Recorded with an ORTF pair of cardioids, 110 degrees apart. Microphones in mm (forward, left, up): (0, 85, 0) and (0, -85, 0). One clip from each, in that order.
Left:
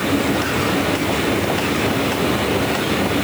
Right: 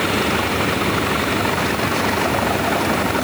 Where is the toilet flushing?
No toilet flushing in this recording.